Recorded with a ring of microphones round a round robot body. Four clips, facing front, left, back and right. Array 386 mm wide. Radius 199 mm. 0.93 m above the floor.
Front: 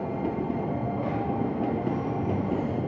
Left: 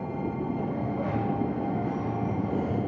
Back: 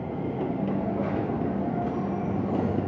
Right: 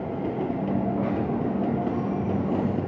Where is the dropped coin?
95° right, 3.5 m.